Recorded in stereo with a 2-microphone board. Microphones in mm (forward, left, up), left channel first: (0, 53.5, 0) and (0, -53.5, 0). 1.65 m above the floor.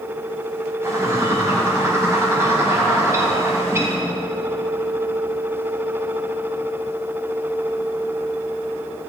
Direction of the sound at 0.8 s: 25° right (ahead or behind).